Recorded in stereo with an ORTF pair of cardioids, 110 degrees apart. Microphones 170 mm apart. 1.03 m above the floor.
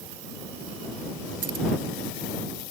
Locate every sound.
1.4 s keys jangling: 55° right